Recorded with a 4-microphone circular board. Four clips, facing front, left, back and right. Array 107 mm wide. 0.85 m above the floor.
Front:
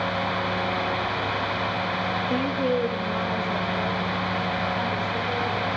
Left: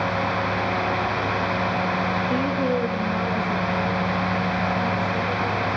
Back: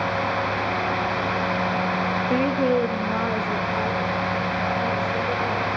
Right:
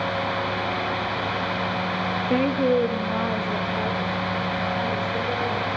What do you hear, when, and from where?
2.3 s a woman speaking: 135° right, 0.6 m; by 5.7 s 160° right, 5 m